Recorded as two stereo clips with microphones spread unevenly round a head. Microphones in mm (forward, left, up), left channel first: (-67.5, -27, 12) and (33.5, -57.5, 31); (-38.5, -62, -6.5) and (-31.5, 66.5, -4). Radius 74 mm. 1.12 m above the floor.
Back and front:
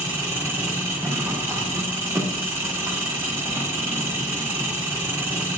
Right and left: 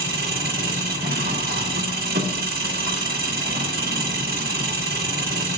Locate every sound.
0.0 s an engine running: 55° left, 1.5 m